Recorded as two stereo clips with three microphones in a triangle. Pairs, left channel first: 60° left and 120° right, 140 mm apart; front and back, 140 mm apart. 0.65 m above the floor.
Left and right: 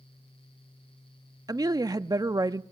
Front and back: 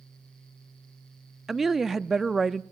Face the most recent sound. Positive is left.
turn(degrees=-95)